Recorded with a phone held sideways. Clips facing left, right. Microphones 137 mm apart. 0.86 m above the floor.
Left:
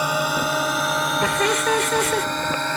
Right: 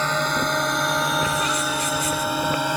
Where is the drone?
10° left (ahead or behind); by 2.8 s 10° right (ahead or behind).